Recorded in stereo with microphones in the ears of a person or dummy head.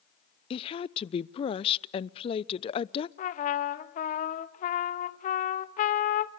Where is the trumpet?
40° left (ahead or behind), 1.4 m.